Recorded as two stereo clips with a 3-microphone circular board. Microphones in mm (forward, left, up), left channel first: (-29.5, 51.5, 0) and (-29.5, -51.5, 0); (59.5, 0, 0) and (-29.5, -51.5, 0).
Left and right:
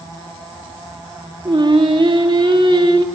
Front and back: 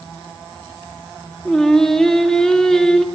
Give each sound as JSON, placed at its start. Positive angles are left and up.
{"t": 1.4, "sound": "singing", "azimuth_deg": -55, "distance_m": 2.0}